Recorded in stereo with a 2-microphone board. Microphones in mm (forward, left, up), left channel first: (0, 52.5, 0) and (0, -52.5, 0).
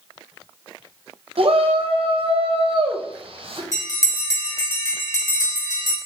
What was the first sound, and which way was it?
A shout, 60° right (ahead or behind).